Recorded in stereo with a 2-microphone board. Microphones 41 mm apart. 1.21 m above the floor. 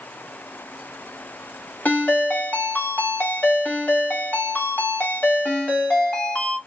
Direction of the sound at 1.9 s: 50° left (ahead or behind).